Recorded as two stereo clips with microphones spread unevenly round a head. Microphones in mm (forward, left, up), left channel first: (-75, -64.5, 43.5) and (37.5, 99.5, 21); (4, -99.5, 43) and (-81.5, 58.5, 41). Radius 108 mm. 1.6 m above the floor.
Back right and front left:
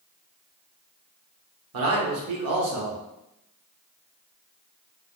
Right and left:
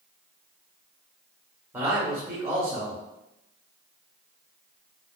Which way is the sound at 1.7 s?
40° left.